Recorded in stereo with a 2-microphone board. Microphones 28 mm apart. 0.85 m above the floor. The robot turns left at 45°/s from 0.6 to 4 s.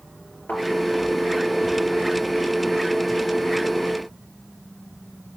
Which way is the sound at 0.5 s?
75° left (ahead or behind).